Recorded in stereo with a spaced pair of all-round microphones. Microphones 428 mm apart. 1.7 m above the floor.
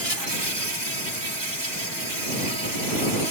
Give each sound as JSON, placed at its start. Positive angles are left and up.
{"t": 0.0, "sound": "an insect", "side_deg": -70}